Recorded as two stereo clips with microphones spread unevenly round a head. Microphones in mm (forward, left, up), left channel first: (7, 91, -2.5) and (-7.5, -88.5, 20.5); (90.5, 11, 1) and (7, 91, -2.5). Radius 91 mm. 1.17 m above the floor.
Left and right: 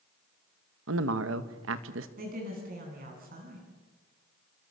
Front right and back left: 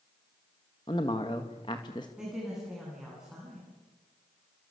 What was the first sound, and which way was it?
A man speaking, 110° right.